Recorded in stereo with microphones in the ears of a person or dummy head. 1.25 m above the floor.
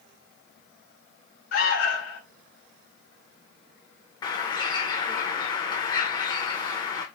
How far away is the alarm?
About 0.9 m.